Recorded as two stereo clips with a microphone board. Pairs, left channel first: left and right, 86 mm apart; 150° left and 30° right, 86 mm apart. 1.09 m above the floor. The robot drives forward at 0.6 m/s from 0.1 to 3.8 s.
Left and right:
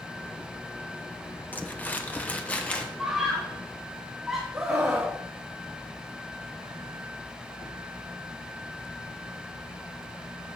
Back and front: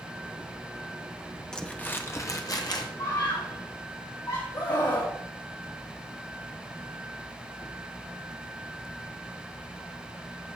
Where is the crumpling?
80° left, 0.8 m; by 2.9 s 165° left, 1.1 m.